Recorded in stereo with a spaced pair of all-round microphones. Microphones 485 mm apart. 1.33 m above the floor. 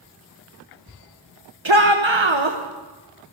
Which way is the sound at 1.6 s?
65° right (ahead or behind).